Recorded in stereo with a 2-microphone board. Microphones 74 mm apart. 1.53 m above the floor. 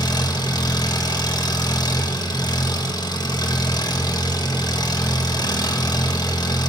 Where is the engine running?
65° left (ahead or behind), 1.9 m.